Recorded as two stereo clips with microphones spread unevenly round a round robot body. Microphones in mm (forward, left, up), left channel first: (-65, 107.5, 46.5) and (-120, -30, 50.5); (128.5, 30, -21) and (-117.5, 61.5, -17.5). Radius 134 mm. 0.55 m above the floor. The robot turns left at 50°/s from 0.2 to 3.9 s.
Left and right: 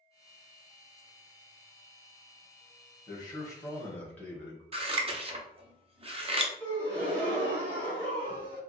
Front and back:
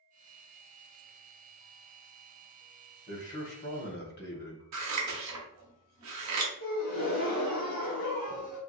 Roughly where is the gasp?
Ahead right.